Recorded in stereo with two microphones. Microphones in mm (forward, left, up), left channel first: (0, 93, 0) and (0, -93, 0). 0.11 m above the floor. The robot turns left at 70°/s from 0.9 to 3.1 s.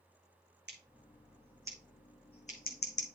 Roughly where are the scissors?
Right.